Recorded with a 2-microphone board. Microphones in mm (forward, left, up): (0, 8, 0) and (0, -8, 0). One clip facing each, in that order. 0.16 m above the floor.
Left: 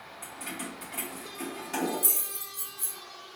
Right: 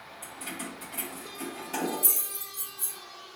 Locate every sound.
0.2 s keys jangling: 30° left (ahead or behind), 1.3 m